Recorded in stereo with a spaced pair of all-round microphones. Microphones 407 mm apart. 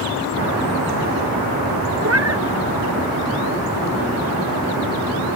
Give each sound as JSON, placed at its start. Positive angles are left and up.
{"t": 2.0, "sound": "a cat meowing", "side_deg": -35}